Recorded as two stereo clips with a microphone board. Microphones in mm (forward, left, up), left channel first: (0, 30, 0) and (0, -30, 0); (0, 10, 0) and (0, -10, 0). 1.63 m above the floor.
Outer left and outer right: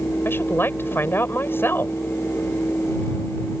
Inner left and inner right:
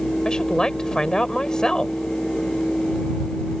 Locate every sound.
0.2 s a woman speaking: 40° left (ahead or behind)